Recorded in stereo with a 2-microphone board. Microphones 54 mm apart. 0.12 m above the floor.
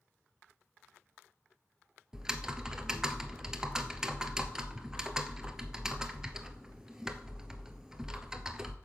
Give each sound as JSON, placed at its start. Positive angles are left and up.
{"t": 2.1, "sound": "typing on a keyboard", "side_deg": -10, "distance_m": 0.8}